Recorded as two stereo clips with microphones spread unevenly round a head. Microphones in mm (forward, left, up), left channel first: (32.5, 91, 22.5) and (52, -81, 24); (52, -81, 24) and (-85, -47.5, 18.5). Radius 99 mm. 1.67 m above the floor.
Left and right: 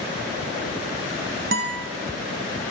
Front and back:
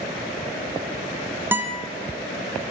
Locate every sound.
1.5 s a guitar: 120° right, 1.2 m